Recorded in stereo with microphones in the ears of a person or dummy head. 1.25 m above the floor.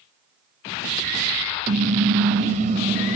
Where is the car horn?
50° right (ahead or behind), 3.5 m; by 3.2 s 40° right (ahead or behind), 2 m.